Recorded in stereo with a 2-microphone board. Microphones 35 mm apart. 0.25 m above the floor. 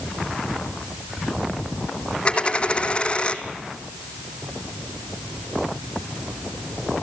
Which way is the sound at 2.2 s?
30° left (ahead or behind).